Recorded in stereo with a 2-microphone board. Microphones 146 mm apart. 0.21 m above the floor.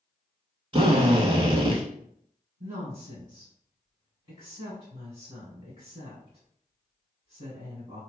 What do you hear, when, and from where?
0.7 s a drill: 40° right (ahead or behind), 0.7 m
2.6 s a woman speaking: 30° right (ahead or behind), 1.8 m